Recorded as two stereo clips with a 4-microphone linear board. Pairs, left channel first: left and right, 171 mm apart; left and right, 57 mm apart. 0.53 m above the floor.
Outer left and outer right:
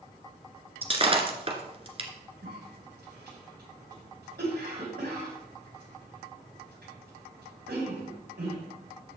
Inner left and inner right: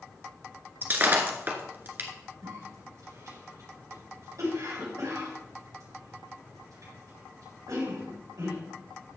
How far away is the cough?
About 4 m.